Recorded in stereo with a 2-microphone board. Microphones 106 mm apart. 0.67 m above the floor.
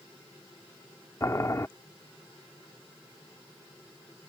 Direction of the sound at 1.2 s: 30° left (ahead or behind).